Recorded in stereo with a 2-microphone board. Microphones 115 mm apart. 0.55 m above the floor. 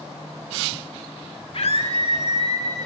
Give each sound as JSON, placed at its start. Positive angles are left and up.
{"t": 1.5, "sound": "a scream", "side_deg": 55, "distance_m": 1.7}